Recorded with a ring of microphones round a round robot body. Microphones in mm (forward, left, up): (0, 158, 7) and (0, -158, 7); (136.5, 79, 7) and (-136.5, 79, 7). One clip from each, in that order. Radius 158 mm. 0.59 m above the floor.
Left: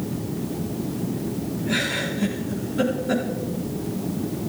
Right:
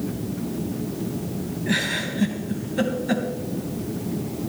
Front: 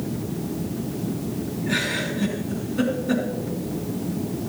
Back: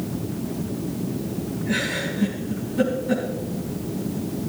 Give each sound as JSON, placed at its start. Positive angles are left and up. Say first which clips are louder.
{"t": 1.7, "sound": "a giggle", "louder": "even, front 1 dB", "azimuth_deg": -85, "distance_m": 3.0}